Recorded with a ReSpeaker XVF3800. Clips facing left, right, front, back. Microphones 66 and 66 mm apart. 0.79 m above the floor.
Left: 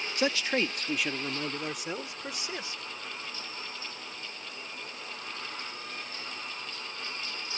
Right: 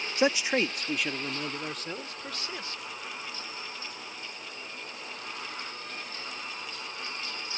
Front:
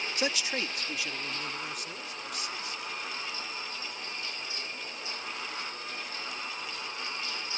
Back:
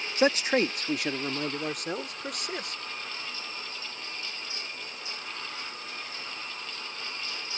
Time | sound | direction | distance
0.2 | a man speaking | 145° right | ?